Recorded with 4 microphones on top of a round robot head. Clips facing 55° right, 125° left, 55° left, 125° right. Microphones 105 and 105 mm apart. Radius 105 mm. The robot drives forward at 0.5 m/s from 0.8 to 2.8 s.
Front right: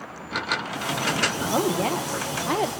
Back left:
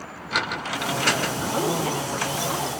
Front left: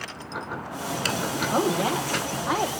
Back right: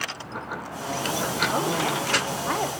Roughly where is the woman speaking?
Ahead.